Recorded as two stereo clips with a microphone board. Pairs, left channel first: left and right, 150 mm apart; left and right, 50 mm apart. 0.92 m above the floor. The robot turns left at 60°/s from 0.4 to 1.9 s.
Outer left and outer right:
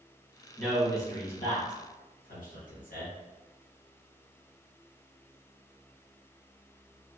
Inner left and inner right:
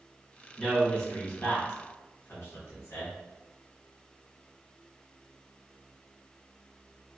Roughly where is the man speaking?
Centre.